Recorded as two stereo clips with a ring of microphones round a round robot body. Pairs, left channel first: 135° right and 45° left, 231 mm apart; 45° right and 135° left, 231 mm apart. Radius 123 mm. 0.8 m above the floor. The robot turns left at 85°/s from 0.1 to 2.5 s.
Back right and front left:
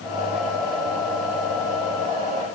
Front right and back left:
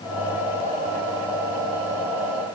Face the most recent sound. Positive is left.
No sound to turn to.